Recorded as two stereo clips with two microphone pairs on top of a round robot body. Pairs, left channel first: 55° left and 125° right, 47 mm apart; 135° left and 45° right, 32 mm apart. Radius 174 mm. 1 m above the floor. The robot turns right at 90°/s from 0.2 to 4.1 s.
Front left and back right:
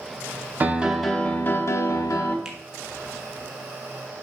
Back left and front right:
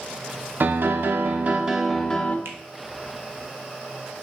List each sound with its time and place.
0.6 s a piano: 70° right, 0.9 m; by 2.4 s 85° left, 0.9 m
2.5 s a finger snap: 50° right, 1.1 m; by 2.6 s 35° right, 1.1 m